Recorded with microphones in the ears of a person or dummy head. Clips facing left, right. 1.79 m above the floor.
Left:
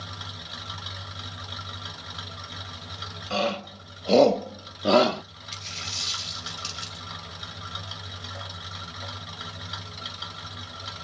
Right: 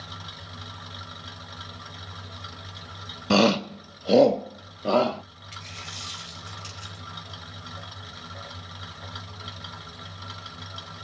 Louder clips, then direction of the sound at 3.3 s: Right 8 dB; 70° right (ahead or behind).